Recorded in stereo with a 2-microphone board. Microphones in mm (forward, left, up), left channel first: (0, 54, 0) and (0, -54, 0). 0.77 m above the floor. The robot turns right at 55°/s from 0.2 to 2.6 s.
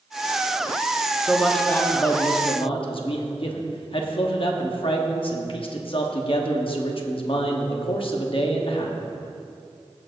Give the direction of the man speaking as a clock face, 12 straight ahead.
12 o'clock.